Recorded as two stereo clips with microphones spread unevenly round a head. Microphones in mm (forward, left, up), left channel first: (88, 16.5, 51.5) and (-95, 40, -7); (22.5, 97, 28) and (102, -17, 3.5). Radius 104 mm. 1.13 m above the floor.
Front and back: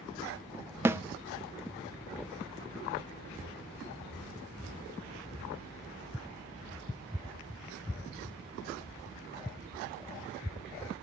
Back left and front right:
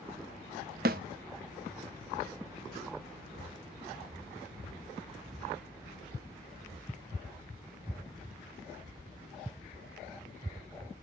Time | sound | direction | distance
0.8 | a snare drum | 100° right | 0.6 m